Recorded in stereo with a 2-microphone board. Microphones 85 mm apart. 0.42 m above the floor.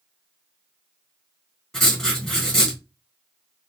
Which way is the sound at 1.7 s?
5° left (ahead or behind).